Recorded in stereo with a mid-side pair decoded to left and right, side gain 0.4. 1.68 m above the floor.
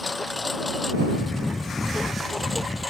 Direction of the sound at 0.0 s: 20° left.